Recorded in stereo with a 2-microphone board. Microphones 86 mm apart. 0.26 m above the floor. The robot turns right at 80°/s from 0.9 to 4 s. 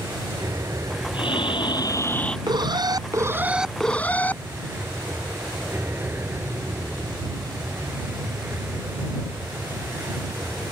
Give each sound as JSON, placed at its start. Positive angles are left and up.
{"t": 0.0, "sound": "an aircraft", "azimuth_deg": -40}
{"t": 1.1, "sound": "breathing", "azimuth_deg": 75}
{"t": 2.5, "sound": "an alarm", "azimuth_deg": -100}